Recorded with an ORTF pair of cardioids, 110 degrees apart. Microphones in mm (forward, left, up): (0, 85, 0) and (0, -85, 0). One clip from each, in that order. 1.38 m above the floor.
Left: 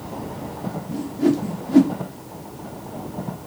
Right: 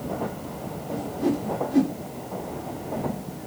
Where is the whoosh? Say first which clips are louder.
Left 5 dB; 40° left, 0.8 m.